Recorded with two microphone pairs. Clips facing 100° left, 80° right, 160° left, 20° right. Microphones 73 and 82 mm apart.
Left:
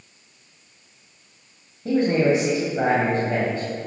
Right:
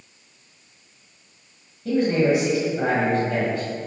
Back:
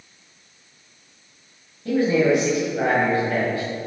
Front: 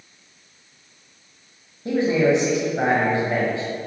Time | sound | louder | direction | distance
1.9 | a man speaking | left 1 dB, even | 45° left | 1.6 m